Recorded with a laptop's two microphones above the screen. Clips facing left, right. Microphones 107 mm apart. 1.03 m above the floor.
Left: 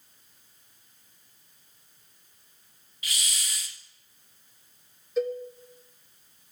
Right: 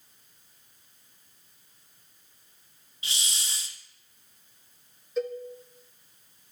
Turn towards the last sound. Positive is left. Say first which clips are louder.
# left 3 dB
turn(degrees=0)  # may be behind; listen again after turning